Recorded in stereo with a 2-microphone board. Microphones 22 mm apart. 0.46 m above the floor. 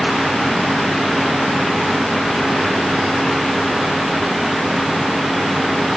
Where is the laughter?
I don't hear laughter.